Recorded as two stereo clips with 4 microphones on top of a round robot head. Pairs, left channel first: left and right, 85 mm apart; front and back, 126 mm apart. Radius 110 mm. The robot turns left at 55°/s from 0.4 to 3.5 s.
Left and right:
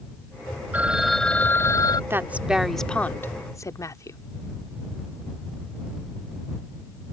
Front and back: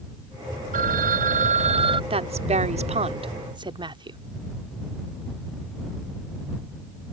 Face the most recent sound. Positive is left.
turn(degrees=135)